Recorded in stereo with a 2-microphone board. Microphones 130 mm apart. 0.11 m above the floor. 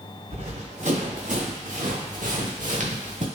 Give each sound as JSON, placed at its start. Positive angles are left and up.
{"t": 0.3, "sound": "running footsteps", "side_deg": -60, "distance_m": 2.0}